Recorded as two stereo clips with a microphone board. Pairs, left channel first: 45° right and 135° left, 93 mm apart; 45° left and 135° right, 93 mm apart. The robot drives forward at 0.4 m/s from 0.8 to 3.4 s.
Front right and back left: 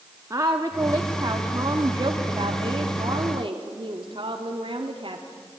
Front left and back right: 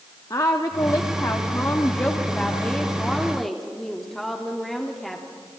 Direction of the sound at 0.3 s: 85° left.